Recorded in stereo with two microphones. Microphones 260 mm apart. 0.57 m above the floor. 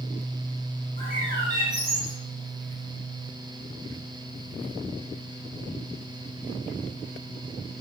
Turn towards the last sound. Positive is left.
turn(degrees=-40)  # may be behind; listen again after turning